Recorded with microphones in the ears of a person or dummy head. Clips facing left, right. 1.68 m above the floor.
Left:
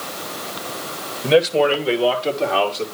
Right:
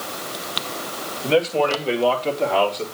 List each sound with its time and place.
1.2 s a man speaking: 30° left (ahead or behind), 2 m; by 2.8 s 5° left (ahead or behind), 3 m